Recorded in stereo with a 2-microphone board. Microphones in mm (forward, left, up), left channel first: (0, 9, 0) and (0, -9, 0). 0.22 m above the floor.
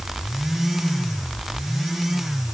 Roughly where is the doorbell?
No doorbell in this recording.